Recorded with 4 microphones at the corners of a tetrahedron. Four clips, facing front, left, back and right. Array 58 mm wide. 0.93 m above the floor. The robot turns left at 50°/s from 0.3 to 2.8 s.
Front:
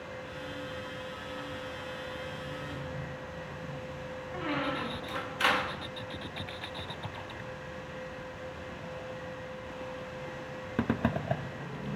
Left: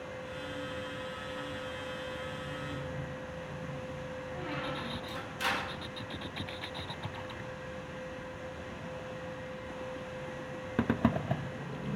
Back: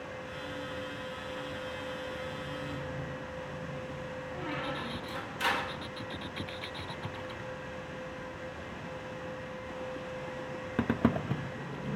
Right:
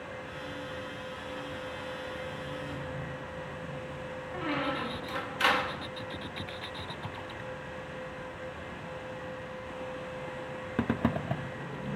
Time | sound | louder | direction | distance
4.3 | a squeak | right 7 dB, front 5 dB | 50° right | 0.9 m